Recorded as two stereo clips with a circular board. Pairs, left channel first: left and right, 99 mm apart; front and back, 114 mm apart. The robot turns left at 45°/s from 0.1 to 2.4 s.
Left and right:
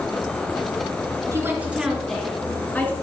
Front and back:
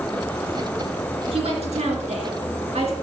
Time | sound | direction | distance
1.3 | a woman speaking | 150° right | 3.5 m